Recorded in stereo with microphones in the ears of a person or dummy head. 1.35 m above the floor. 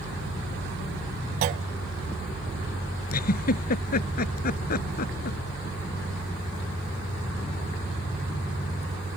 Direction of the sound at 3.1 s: 50° left (ahead or behind).